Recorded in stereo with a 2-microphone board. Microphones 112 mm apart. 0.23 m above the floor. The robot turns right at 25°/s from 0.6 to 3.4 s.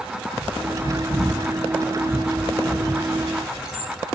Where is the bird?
65° left (ahead or behind), 1.1 m; by 3.9 s 5° right (ahead or behind), 1.1 m.